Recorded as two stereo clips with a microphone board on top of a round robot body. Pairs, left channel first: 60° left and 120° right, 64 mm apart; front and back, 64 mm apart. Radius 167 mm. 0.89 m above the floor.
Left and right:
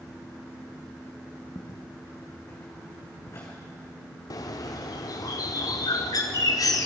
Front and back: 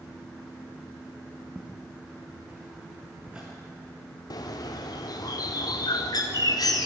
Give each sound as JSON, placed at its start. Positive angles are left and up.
{"t": 1.6, "sound": "footsteps", "azimuth_deg": 95, "distance_m": 3.5}
{"t": 4.3, "sound": "a bird", "azimuth_deg": 25, "distance_m": 1.1}